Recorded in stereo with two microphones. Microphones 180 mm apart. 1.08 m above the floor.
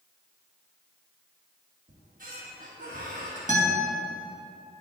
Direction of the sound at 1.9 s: 50° right (ahead or behind).